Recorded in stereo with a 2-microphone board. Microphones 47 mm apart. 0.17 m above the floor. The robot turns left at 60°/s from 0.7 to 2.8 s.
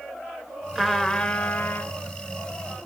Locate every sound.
0.8 s a trumpet: 170° right, 2.5 m; by 1.9 s 120° left, 2.5 m